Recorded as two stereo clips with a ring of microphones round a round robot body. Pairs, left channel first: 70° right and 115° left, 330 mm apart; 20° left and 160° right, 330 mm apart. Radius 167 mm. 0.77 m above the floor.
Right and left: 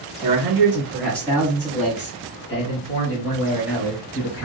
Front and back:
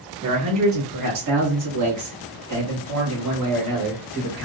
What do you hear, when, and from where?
0.2 s a man speaking: 175° left, 1.1 m; by 4.5 s 110° right, 2.5 m